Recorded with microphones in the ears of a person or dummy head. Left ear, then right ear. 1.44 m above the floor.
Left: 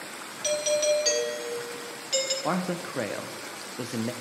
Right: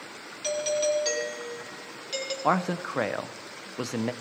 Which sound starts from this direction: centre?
A doorbell, at 0.4 s.